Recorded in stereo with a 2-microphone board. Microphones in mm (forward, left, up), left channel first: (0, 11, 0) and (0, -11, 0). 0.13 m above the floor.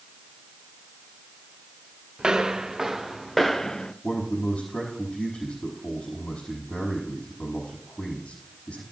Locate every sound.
2.2 s footsteps: 40° right (ahead or behind), 1.2 m; by 3.9 s 35° left (ahead or behind), 0.8 m
4.0 s a man speaking: 70° left (ahead or behind), 5 m